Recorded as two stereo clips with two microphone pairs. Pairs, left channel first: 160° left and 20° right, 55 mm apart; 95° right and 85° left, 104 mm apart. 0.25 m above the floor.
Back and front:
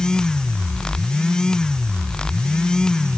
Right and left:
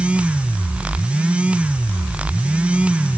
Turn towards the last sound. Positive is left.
No sound to turn to.